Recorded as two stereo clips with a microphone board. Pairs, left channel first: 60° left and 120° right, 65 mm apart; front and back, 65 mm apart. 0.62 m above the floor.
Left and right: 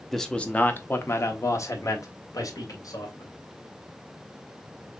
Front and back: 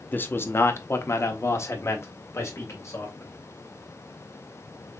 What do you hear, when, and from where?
0.1 s a man speaking: 25° right, 0.7 m; by 3.3 s 45° left, 2 m